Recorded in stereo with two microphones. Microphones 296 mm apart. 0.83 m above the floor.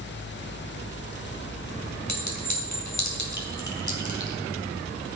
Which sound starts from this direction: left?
A clink, at 2.1 s.